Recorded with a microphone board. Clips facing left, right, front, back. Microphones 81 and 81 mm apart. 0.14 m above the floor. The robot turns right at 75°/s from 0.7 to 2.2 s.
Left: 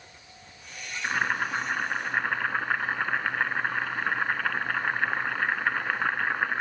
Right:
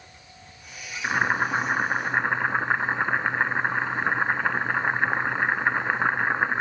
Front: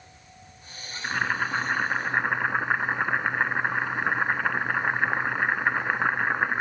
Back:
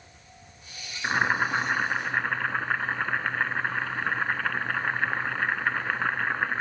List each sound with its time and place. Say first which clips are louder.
1.0 s boiling: right 4 dB, back 2 dB; 140° right, 0.6 m; by 6.6 s 50° right, 0.6 m